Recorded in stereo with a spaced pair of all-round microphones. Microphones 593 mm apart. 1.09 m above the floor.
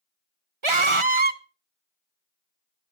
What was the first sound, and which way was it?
A scream, 55° right (ahead or behind).